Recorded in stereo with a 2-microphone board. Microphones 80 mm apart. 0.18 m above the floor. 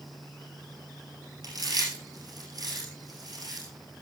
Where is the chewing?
60° right (ahead or behind), 8.5 m.